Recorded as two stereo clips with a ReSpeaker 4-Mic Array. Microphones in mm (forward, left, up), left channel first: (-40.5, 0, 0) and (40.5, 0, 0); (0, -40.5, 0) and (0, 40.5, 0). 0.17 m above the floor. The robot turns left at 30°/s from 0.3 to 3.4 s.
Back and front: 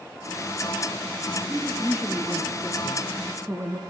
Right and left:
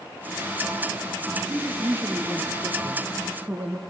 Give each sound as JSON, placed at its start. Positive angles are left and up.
{"t": 1.5, "sound": "a woman speaking", "azimuth_deg": 105, "distance_m": 1.3}